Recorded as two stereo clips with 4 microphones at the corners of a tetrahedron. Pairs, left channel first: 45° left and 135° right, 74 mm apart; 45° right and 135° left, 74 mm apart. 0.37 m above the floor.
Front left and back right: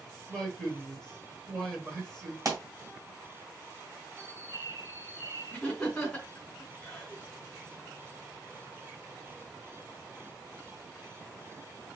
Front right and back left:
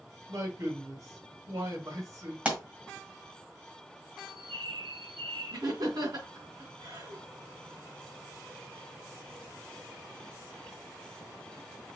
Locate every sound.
0.3 s a man speaking: 120° left, 1.4 m
2.5 s a pop: 160° right, 1.7 m
4.2 s a bird: 5° right, 0.9 m
5.5 s laughter: 130° left, 2.5 m